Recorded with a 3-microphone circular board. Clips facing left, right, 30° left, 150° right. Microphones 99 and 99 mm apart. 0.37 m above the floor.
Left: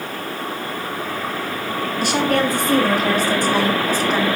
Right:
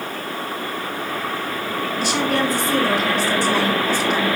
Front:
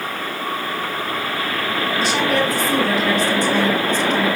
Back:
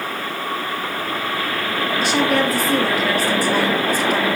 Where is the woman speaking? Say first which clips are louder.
Left 3 dB, back 1 dB; 120° left, 3.5 m; by 4.3 s 130° left, 2 m.